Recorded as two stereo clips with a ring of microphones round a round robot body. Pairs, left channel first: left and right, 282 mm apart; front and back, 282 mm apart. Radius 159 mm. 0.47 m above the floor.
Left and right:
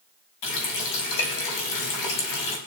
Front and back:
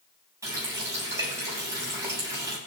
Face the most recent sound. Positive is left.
turn(degrees=100)